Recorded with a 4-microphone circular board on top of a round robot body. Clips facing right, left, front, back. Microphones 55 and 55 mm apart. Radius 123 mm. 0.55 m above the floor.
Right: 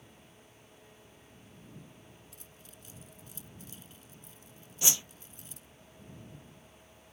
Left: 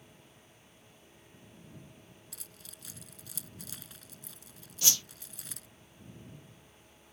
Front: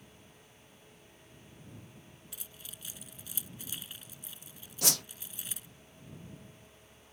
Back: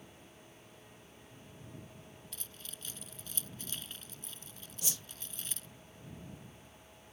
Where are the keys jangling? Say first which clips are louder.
Even, back 1 dB; 80° left.